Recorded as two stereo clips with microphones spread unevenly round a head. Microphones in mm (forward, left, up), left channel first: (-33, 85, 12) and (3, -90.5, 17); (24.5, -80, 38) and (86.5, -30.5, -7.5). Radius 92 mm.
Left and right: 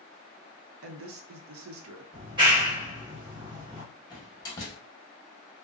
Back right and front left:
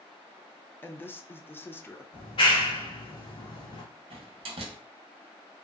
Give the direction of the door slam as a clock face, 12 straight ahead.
11 o'clock.